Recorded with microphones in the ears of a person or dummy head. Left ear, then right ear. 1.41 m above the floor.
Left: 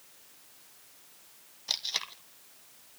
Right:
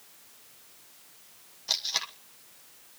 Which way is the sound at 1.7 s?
5° left (ahead or behind).